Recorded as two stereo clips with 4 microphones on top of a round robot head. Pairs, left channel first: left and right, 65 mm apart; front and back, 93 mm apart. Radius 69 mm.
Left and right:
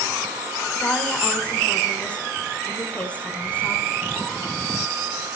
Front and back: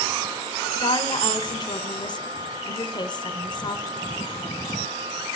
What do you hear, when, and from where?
0.8 s a woman speaking: 20° left, 1.4 m